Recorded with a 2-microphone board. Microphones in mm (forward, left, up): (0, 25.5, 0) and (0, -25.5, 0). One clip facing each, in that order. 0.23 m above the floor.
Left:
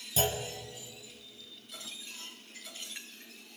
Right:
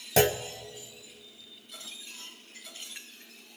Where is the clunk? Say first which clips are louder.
Right 8 dB; 75° right (ahead or behind), 0.8 m.